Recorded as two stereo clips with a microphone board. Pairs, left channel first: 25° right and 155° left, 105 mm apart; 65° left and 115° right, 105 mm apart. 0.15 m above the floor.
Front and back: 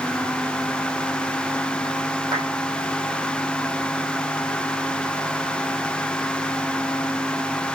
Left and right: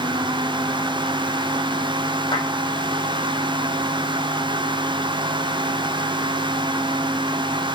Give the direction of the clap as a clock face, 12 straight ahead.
9 o'clock.